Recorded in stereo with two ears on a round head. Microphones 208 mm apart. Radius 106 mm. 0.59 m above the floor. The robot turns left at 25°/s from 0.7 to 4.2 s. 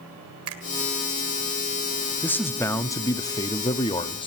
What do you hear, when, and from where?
0.5 s a finger snap: 70° right (ahead or behind), 2.0 m
2.2 s a man speaking: 10° left (ahead or behind), 0.6 m; by 4.3 s 20° left (ahead or behind), 0.6 m